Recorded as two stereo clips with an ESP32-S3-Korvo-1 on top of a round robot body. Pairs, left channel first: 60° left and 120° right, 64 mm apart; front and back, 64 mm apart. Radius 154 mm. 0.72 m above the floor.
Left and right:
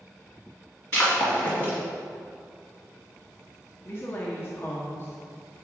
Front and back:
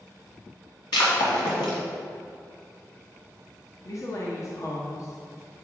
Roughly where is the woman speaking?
Ahead.